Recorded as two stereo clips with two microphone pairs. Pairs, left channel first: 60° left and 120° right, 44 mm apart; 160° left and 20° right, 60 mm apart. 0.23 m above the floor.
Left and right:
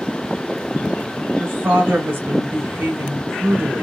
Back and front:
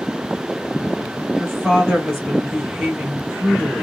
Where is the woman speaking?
105° right, 2.5 m.